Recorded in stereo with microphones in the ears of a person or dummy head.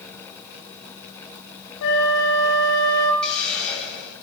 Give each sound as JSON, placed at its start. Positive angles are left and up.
{"t": 1.8, "sound": "a flute", "side_deg": 70, "distance_m": 2.0}
{"t": 3.2, "sound": "a hiss", "side_deg": 5, "distance_m": 2.5}